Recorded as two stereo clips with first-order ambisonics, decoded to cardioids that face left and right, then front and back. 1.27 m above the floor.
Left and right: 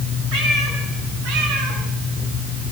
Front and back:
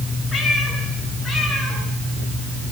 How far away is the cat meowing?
About 5.5 m.